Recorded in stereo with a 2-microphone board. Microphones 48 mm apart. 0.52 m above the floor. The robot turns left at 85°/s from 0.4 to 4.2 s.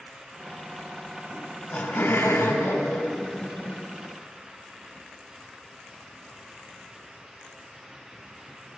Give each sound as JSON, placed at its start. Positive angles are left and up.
{"t": 1.3, "sound": "laughter", "azimuth_deg": 175, "distance_m": 3.5}